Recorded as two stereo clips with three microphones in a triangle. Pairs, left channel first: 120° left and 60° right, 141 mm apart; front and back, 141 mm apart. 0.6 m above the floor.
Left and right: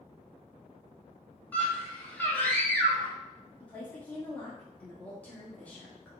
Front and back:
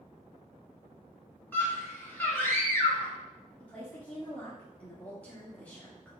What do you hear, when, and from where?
1.5 s a scream: 55° left, 0.8 m
3.6 s a woman speaking: 60° left, 1.1 m